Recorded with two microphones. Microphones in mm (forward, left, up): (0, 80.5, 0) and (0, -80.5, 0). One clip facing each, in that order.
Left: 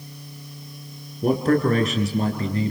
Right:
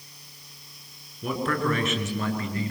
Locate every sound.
1.2 s a man speaking: 45° left (ahead or behind), 4.5 m; by 2.7 s 30° left (ahead or behind), 6 m